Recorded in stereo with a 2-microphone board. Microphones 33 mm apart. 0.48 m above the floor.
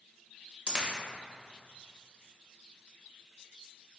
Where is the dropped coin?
30° right (ahead or behind), 0.6 m.